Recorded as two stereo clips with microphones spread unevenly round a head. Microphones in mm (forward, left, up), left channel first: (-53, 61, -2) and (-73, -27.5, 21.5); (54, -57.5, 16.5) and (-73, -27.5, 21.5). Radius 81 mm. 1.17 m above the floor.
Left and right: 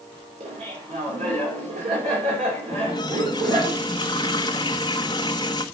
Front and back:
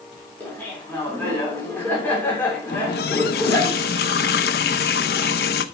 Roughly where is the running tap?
Ahead.